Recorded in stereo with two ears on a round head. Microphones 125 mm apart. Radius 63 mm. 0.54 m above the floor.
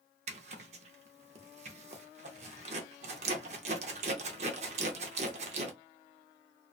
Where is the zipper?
50° right (ahead or behind), 0.6 m.